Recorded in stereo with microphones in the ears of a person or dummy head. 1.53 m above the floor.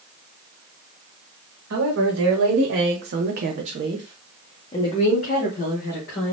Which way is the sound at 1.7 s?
75° right (ahead or behind).